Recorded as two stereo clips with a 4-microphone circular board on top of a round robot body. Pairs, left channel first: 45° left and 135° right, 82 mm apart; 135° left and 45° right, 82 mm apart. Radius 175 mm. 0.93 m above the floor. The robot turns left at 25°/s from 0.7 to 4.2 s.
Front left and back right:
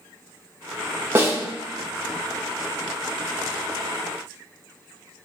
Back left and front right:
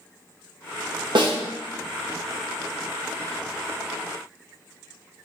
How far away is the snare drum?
About 1.2 m.